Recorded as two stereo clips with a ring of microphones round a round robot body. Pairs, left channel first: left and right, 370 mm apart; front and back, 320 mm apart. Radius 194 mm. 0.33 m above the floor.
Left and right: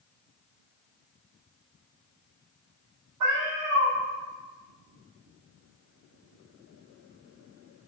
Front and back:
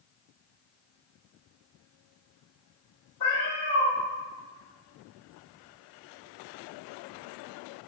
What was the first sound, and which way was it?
A cat meowing, 50° right.